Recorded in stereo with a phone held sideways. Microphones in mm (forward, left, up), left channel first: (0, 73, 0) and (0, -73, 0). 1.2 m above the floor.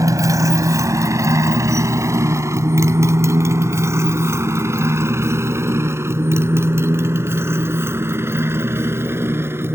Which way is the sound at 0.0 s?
20° right (ahead or behind).